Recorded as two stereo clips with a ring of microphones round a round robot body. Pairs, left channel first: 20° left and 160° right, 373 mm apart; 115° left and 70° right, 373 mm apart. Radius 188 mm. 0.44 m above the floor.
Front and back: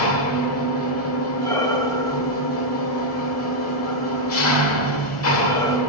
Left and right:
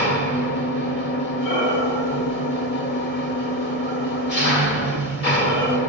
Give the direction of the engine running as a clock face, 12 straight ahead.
10 o'clock.